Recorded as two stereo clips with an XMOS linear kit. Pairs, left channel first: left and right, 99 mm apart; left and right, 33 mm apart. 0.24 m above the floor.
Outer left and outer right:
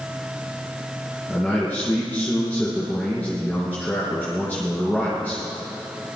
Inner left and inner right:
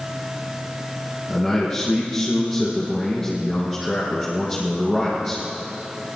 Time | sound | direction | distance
1.3 | a man speaking | 15° left (ahead or behind) | 4.5 m